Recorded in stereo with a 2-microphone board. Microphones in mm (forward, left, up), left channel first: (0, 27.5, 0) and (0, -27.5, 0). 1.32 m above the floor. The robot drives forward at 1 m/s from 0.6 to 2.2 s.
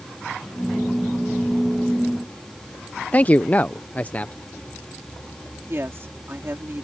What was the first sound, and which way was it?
A man speaking, 30° left (ahead or behind).